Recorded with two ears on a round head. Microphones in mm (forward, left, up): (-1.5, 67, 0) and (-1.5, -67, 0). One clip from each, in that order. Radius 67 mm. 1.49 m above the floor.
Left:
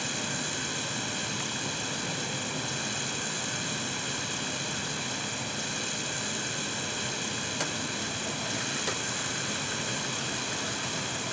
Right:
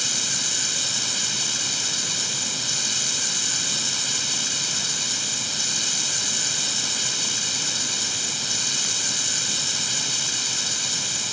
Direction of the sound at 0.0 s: 85° right.